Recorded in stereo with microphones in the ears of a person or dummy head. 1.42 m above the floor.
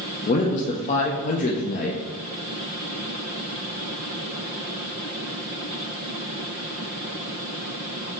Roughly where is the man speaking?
Left.